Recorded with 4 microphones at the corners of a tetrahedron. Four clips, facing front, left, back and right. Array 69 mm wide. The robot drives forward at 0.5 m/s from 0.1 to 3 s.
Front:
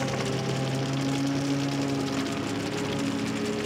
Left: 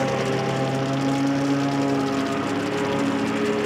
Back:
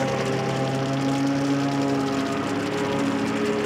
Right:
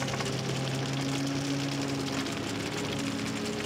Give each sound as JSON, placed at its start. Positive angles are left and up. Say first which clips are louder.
{"t": 0.0, "sound": "a lawn mower", "louder": "left 10 dB, back 5 dB", "azimuth_deg": 125}